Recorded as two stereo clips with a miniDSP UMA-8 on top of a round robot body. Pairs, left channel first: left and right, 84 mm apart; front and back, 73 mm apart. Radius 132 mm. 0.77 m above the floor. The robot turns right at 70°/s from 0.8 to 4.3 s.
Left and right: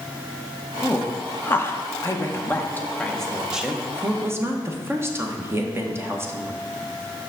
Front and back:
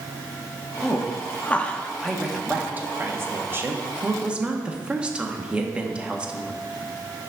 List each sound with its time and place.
0.8 s a woman speaking: straight ahead, 1.1 m; by 6.5 s 115° right, 1.1 m